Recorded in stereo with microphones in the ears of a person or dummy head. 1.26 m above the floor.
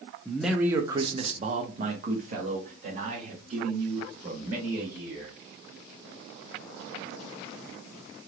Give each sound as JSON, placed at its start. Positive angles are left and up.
{"t": 0.2, "sound": "a man speaking", "side_deg": 5, "distance_m": 0.5}